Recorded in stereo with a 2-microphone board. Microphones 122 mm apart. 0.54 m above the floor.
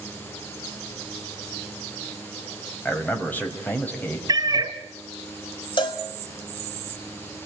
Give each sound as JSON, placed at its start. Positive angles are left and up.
{"t": 2.9, "sound": "a man speaking", "side_deg": 15, "distance_m": 4.0}
{"t": 4.3, "sound": "a cat meowing", "side_deg": -35, "distance_m": 1.6}
{"t": 5.8, "sound": "a cowbell", "side_deg": 40, "distance_m": 3.5}